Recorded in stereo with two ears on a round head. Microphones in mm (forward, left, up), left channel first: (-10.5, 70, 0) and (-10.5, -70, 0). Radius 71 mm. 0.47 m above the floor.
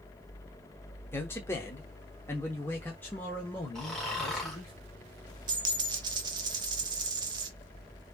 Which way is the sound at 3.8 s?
Centre (ahead or behind).